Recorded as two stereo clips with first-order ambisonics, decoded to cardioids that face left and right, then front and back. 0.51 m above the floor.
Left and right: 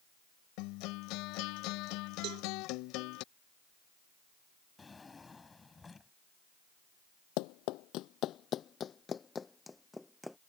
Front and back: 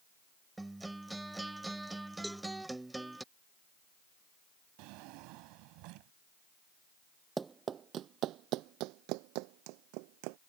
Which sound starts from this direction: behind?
A drawer, at 4.8 s.